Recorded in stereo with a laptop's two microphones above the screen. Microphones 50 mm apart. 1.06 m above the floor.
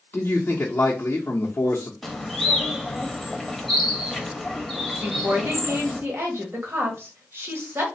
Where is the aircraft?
No aircraft in this recording.